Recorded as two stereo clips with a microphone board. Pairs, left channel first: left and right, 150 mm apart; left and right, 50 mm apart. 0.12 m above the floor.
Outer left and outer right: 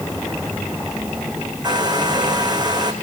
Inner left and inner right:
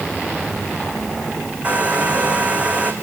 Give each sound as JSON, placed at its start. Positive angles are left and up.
{"t": 1.6, "sound": "a hair dryer", "side_deg": -25, "distance_m": 3.5}